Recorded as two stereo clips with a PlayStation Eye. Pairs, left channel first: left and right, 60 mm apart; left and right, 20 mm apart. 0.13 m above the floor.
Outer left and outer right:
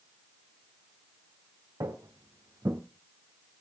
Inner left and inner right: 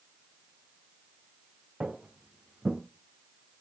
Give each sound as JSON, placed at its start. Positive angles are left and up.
{"t": 1.8, "sound": "footsteps", "side_deg": -80, "distance_m": 2.5}